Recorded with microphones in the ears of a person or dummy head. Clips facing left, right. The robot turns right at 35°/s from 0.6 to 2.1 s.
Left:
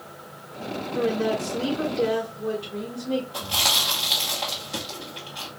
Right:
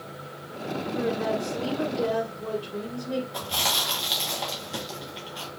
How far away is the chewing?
About 1.1 m.